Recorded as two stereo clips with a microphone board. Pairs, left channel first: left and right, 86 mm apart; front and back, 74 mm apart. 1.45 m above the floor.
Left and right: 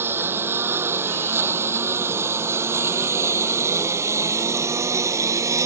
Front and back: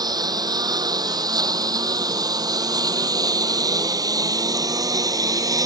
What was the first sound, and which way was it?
A lawn mower, 155° right.